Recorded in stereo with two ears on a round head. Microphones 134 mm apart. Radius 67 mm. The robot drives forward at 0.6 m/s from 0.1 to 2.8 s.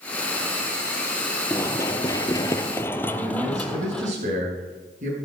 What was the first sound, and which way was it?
Running footsteps, 20° left (ahead or behind).